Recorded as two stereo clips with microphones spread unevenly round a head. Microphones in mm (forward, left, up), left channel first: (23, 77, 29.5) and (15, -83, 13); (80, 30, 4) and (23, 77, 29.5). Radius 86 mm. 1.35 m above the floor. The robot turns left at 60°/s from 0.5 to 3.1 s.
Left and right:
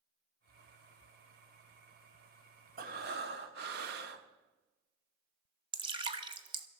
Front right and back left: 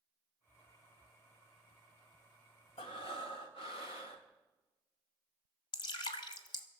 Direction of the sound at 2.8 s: 60° right.